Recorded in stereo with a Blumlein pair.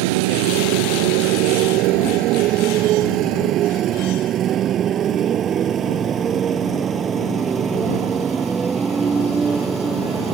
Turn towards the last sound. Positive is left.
turn(degrees=-15)